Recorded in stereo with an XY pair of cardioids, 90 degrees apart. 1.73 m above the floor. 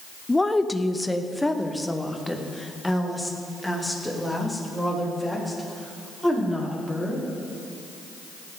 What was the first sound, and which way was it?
A woman speaking, 15° left.